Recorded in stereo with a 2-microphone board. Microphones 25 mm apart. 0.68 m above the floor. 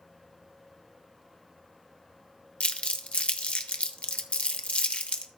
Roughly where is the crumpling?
Left.